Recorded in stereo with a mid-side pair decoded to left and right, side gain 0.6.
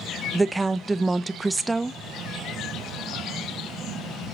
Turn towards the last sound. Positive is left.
turn(degrees=-15)